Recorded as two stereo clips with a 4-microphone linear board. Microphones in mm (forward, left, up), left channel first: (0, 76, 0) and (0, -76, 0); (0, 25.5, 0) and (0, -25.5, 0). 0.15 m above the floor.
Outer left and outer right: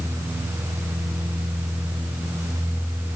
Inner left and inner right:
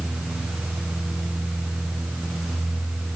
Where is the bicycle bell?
No bicycle bell in this recording.